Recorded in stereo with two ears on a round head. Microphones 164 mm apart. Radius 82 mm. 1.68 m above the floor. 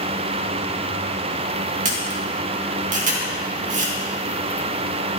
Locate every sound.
1.9 s a camera shutter: 45° right (ahead or behind), 2.5 m